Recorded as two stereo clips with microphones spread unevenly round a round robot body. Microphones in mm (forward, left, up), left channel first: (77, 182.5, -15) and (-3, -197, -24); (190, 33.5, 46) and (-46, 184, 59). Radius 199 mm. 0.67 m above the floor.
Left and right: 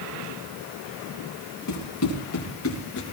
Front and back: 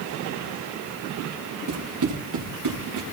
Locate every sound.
1.7 s running footsteps: 130° left, 4.5 m; by 3.0 s 145° left, 4 m